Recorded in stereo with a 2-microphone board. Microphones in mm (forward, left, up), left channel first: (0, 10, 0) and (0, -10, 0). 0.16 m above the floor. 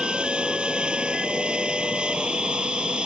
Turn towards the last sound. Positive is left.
turn(degrees=-65)  # may be behind; listen again after turning